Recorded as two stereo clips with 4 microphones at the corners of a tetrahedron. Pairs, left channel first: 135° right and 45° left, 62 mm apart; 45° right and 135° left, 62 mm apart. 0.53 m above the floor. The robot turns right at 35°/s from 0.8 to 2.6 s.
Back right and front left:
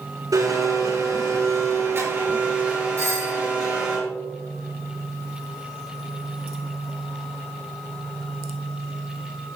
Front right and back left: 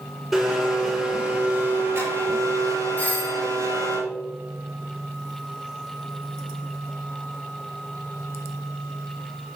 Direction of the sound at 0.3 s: 45° left.